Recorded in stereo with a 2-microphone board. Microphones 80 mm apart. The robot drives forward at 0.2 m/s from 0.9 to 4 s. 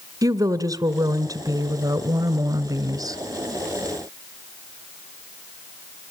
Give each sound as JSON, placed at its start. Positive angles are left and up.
{"t": 0.2, "sound": "a woman speaking", "side_deg": -50, "distance_m": 1.7}